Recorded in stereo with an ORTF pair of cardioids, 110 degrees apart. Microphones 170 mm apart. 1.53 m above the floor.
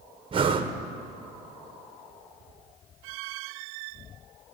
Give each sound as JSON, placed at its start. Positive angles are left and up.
{"t": 0.3, "sound": "breathing", "azimuth_deg": -30, "distance_m": 0.8}